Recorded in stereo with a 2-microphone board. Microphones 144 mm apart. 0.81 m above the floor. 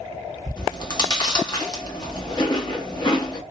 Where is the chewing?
30° left (ahead or behind), 0.9 m.